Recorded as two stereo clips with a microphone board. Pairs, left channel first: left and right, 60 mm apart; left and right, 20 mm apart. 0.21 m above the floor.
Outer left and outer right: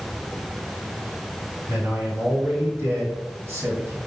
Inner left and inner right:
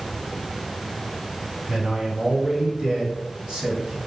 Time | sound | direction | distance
1.7 | a man speaking | 35° right (ahead or behind) | 1.9 m